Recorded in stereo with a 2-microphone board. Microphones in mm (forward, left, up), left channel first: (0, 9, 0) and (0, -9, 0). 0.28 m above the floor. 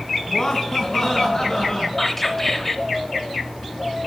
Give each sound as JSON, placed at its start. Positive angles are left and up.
{"t": 0.3, "sound": "laughter", "side_deg": 40, "distance_m": 3.0}
{"t": 2.0, "sound": "whispering", "side_deg": 20, "distance_m": 0.9}